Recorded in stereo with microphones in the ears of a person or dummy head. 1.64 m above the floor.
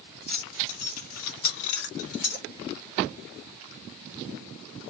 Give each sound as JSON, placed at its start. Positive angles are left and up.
{"t": 0.3, "sound": "keys jangling", "side_deg": 40, "distance_m": 1.4}